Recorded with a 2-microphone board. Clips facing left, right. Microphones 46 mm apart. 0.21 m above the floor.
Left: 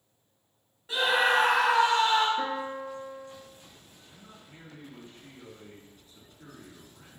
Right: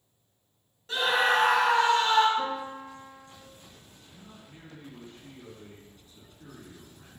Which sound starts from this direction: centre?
A scream, at 0.9 s.